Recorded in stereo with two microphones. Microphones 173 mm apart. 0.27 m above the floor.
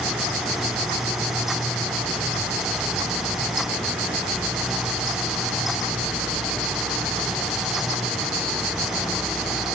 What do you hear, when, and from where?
Only background noise.